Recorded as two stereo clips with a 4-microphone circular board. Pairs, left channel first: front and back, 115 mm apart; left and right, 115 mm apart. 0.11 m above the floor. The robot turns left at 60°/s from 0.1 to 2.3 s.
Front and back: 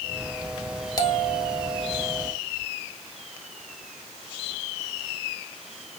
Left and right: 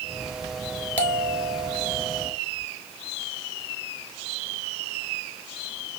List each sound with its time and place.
1.0 s a bell: 25° left, 0.6 m; by 2.3 s 55° right, 0.6 m